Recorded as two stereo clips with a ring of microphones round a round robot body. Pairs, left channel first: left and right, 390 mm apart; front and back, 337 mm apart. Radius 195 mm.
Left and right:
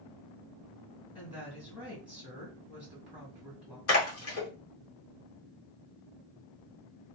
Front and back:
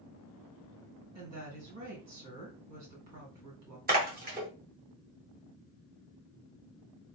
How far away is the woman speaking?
About 1.8 m.